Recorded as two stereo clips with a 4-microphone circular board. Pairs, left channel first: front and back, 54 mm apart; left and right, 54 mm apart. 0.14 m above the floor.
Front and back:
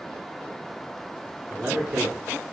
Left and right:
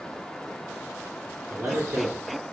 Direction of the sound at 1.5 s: 120° right.